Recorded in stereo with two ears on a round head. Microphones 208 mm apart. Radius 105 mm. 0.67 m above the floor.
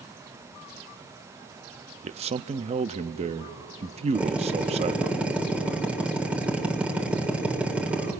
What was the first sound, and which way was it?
A man speaking, 25° right (ahead or behind).